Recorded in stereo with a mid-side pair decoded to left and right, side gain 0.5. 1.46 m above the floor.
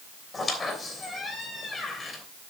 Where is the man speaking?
I don't hear a man speaking.